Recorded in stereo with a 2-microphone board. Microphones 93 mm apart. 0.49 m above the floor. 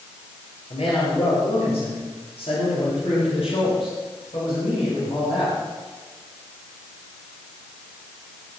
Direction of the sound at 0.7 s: 75° left (ahead or behind).